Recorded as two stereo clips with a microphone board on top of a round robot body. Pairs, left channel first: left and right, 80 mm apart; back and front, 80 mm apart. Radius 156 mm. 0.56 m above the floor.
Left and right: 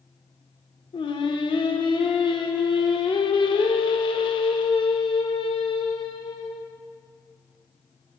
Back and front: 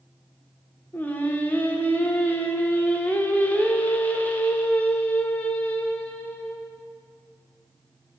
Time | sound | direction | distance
0.9 | singing | 105° left | 0.8 m